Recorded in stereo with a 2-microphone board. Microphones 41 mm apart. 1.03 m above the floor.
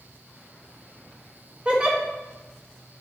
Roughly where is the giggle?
Right.